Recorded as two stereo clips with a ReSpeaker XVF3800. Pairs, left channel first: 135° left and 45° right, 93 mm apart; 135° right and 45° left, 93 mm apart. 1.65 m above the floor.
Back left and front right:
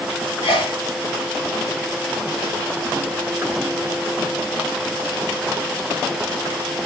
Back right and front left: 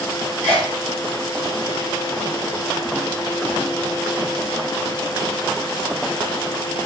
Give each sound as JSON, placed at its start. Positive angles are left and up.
{"t": 0.4, "sound": "a sneeze", "azimuth_deg": 150, "distance_m": 3.0}